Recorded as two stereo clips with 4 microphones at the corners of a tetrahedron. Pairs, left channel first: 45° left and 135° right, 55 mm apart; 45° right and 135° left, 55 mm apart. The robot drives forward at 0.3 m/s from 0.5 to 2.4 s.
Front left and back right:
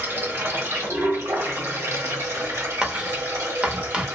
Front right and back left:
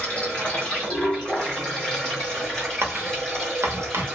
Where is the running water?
105° right, 1.7 m; by 4.2 s 125° right, 1.9 m.